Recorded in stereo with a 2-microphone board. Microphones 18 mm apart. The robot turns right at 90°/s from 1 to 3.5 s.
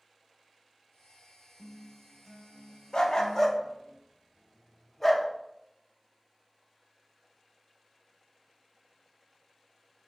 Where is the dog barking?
50° left (ahead or behind), 0.5 m; by 5.3 s 10° left (ahead or behind), 0.5 m.